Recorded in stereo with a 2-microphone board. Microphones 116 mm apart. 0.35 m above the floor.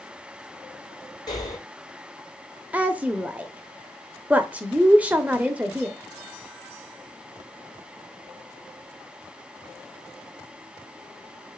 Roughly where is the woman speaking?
Centre.